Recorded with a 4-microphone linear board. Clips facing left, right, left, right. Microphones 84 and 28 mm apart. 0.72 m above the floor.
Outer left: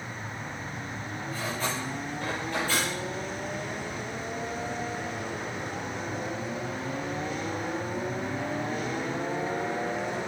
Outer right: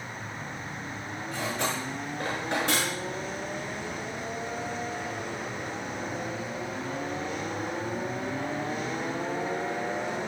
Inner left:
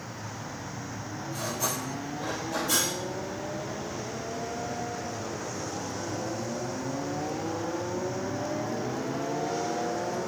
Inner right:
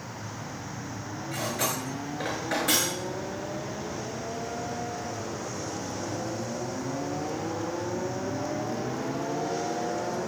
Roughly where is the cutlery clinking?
Right.